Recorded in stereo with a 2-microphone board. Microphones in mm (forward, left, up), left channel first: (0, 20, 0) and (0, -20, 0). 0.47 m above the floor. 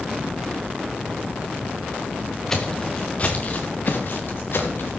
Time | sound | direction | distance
2.5 | footsteps | 15° left (ahead or behind) | 2 m